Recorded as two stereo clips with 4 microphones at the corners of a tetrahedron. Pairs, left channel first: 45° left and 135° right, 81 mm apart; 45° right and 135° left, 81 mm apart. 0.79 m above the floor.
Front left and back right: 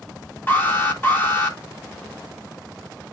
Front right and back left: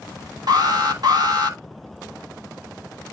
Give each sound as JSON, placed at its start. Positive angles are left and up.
{"t": 0.5, "sound": "an alarm", "azimuth_deg": 110, "distance_m": 3.0}